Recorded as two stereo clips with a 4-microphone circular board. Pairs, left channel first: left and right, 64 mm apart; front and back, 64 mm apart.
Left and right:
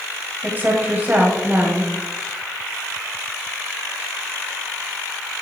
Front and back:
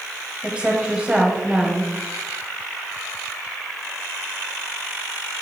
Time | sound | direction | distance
0.4 | a woman speaking | 125° right | 1.6 m